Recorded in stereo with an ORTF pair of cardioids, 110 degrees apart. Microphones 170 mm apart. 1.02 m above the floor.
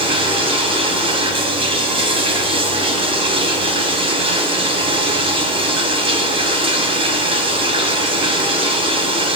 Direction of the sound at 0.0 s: 30° right.